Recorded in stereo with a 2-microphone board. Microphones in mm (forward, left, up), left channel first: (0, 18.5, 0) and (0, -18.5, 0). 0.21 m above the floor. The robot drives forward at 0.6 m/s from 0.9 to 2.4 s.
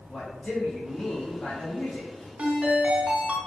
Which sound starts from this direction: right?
A ringtone, at 2.4 s.